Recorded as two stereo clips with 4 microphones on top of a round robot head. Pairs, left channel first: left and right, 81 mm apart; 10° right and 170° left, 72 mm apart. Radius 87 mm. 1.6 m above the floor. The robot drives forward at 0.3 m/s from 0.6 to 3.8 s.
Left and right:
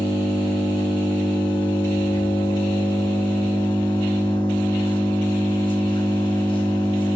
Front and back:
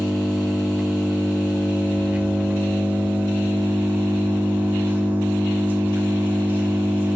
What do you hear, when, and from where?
0.0 s an engine running: 90° left, 3 m; by 7.2 s 110° left, 3.5 m